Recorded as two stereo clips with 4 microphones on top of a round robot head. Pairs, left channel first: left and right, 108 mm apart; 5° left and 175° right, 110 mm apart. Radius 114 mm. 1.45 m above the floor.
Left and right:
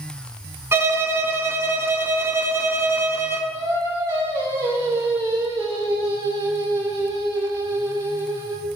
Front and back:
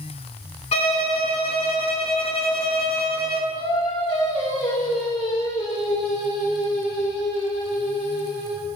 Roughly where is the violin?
Ahead right.